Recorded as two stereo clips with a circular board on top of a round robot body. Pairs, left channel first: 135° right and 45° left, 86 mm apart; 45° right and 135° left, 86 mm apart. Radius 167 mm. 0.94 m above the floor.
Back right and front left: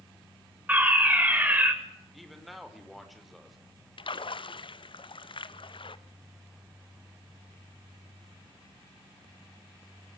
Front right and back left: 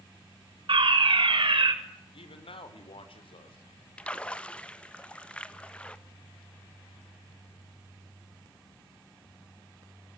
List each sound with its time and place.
0.7 s a fire alarm: 115° left, 6 m
2.1 s a man speaking: 45° right, 5 m
4.0 s a splash: 120° right, 1.5 m